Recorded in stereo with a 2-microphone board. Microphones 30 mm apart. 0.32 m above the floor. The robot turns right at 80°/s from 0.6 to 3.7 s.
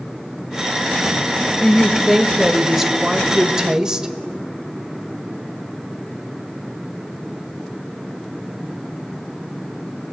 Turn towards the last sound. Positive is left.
turn(degrees=-25)  # may be behind; listen again after turning